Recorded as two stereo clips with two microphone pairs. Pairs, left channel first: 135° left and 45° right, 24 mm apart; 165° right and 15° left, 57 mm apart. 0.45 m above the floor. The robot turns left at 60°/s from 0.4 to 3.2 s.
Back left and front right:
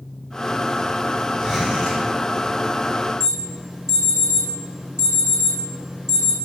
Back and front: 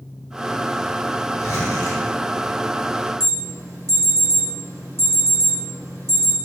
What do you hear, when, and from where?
1.4 s a zipper: 155° right, 2.5 m; by 2.0 s 165° left, 2.5 m
3.2 s an alarm: 10° left, 2.5 m